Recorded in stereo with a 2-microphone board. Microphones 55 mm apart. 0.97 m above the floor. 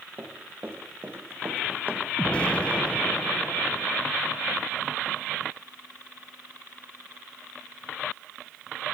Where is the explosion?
20° left (ahead or behind), 0.8 m.